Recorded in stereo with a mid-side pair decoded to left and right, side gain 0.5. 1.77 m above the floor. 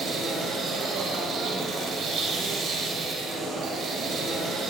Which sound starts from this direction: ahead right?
A machine running, at 0.0 s.